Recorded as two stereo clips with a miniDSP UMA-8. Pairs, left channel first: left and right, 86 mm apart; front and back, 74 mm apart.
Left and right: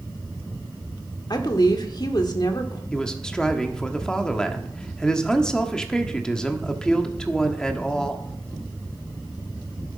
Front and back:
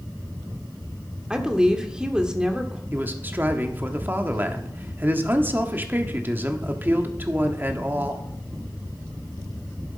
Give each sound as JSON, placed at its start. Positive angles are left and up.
{"t": 1.3, "sound": "a woman speaking", "azimuth_deg": 105, "distance_m": 1.4}
{"t": 2.9, "sound": "a man speaking", "azimuth_deg": 160, "distance_m": 1.1}